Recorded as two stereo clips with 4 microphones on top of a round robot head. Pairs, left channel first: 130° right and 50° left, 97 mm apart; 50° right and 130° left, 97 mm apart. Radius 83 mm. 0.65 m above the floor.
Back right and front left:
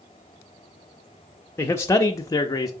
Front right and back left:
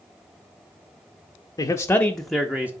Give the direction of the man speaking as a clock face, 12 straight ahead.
3 o'clock.